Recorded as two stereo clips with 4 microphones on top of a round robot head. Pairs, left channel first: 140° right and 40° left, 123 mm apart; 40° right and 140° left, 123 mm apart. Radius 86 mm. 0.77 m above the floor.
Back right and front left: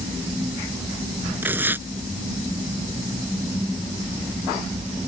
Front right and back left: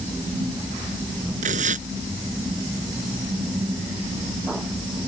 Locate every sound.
1.4 s tearing paper: 115° left